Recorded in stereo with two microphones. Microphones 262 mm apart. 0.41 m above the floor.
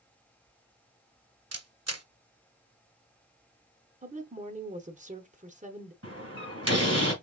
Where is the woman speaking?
30° right (ahead or behind), 0.9 m.